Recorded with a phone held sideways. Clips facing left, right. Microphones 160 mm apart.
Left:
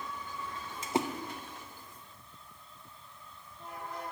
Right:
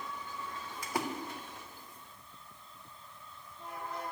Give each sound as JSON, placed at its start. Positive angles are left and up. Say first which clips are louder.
{"t": 0.8, "sound": "a splash", "louder": "left 5 dB", "side_deg": 25, "distance_m": 0.9}